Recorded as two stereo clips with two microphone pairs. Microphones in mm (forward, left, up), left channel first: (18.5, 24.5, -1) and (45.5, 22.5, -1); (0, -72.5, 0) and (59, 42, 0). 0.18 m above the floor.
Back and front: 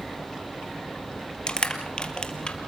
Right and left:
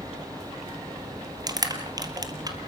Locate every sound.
1.5 s crushing: 120° left, 2 m